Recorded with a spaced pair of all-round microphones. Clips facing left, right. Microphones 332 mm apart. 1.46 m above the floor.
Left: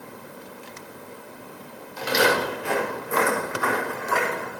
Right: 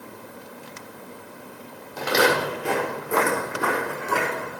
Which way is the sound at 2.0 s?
60° right (ahead or behind).